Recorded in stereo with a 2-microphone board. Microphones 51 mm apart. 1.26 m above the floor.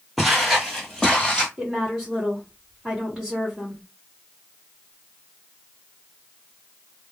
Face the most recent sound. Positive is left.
turn(degrees=-5)  # may be behind; listen again after turning